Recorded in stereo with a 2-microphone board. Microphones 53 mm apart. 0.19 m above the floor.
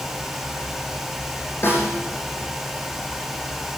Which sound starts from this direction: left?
A snare drum, at 1.6 s.